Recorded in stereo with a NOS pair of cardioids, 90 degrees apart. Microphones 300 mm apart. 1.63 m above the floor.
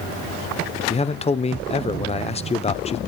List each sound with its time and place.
0.9 s a man speaking: 20° left, 0.9 m